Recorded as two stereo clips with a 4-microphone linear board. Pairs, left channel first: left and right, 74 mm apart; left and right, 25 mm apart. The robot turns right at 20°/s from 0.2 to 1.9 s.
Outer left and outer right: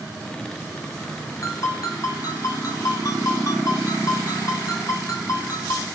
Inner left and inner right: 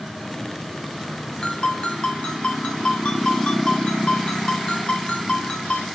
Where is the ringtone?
50° left (ahead or behind), 3.5 m; by 5.9 s 55° left (ahead or behind), 3.5 m.